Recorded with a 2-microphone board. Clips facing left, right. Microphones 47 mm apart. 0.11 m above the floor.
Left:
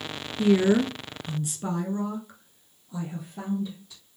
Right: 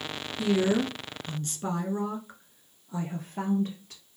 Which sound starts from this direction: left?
A woman speaking, at 0.4 s.